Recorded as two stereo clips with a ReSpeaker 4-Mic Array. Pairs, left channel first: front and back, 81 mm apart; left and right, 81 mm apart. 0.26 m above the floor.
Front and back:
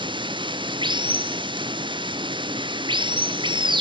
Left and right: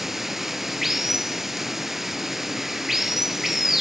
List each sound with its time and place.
0.0 s running water: 175° right, 0.7 m